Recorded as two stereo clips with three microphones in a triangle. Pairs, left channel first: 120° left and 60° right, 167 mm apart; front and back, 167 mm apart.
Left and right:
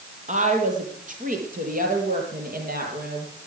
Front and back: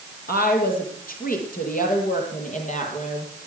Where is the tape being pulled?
I don't hear tape being pulled.